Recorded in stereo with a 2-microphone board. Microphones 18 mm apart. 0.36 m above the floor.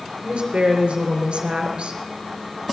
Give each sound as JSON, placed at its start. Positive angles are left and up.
{"t": 0.2, "sound": "a woman speaking", "side_deg": -75, "distance_m": 5.0}